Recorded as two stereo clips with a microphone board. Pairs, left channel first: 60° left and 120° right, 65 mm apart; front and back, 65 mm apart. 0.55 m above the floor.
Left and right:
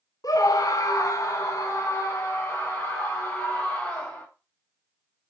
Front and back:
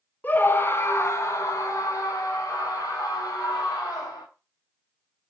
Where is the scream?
60° left, 1.4 m; by 4.2 s straight ahead, 3 m.